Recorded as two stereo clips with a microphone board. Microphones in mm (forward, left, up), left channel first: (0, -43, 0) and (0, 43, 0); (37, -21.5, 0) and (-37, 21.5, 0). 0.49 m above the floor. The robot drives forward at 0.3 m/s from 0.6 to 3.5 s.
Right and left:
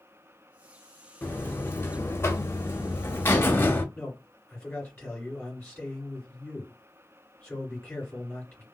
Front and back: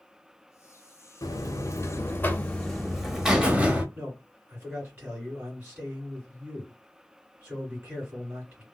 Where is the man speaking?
165° right, 2.0 m.